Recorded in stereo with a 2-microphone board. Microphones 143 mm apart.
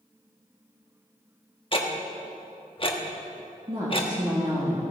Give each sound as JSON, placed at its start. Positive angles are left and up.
{"t": 1.7, "sound": "ticking", "side_deg": 40, "distance_m": 1.3}
{"t": 3.7, "sound": "a woman speaking", "side_deg": -35, "distance_m": 2.0}